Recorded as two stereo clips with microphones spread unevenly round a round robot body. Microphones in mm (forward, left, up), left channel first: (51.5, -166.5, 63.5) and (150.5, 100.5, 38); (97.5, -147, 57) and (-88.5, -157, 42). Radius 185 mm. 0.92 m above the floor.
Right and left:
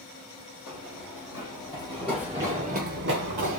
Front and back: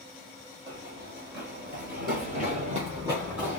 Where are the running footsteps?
150° right, 1.7 m; by 3.6 s 90° left, 1.3 m.